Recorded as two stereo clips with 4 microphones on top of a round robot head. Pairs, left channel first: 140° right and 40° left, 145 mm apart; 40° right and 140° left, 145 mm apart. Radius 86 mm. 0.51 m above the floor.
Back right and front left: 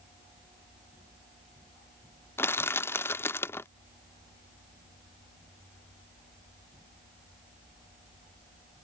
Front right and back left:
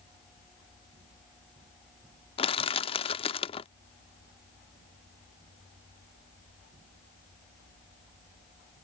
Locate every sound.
2.4 s crushing: 70° right